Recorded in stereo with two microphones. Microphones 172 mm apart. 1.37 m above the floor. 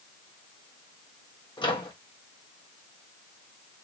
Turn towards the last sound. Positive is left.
turn(degrees=25)  # may be behind; listen again after turning